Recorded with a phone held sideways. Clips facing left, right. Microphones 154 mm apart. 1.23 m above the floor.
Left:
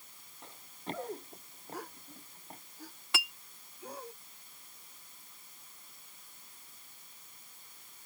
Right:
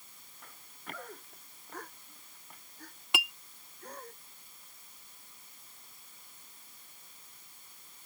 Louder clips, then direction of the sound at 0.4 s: Left 7 dB; 25° left (ahead or behind).